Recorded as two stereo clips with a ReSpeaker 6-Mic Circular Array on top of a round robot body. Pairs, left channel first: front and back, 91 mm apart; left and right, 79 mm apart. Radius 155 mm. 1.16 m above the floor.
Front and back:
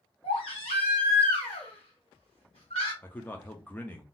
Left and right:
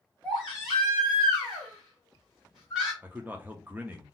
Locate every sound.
0.2 s a baby crying: straight ahead, 0.8 m
3.0 s a man speaking: 45° right, 0.7 m